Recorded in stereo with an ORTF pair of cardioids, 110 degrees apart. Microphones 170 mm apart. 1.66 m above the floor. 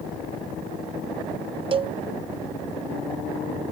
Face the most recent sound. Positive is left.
turn(degrees=-30)